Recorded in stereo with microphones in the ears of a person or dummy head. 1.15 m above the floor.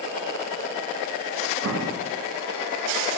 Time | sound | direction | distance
1.6 | an explosion | 65° right (ahead or behind) | 1.6 m